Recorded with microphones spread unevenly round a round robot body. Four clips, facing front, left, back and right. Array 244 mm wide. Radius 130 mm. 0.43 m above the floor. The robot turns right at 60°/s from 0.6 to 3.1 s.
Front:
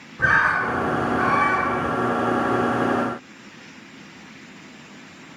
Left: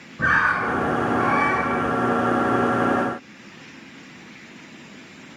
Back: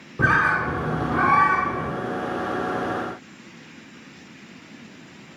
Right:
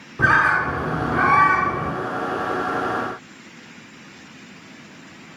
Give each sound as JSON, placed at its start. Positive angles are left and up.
{"t": 0.2, "sound": "a bird", "azimuth_deg": -170, "distance_m": 2.0}